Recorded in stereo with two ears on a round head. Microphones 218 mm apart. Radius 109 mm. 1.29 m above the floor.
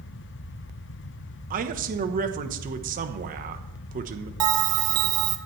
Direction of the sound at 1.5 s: 35° right (ahead or behind).